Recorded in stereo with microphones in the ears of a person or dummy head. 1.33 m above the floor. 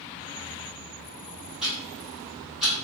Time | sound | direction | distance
1.6 | ticking | 5° left (ahead or behind) | 1.5 m